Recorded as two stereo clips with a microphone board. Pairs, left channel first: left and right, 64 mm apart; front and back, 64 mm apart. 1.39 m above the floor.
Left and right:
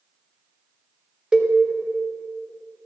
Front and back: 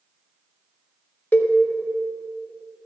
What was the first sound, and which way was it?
A cowbell, 20° right.